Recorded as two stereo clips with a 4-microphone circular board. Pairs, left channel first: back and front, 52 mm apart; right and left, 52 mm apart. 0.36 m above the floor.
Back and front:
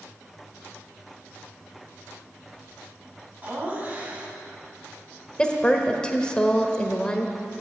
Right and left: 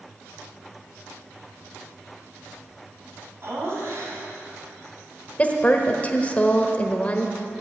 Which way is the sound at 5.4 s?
125° right.